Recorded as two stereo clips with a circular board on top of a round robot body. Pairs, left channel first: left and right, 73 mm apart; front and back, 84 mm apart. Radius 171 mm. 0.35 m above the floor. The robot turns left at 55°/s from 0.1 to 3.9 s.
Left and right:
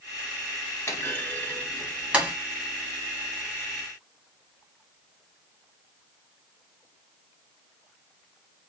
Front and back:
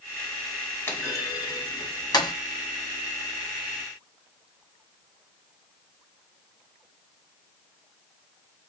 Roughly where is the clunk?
Ahead left.